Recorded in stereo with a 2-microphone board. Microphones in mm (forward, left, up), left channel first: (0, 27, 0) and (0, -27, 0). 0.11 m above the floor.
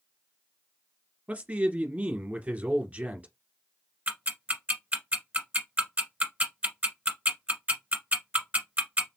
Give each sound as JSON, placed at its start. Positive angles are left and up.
{"t": 1.3, "sound": "a man speaking", "side_deg": -30, "distance_m": 1.5}
{"t": 4.1, "sound": "ticking", "side_deg": -25, "distance_m": 1.3}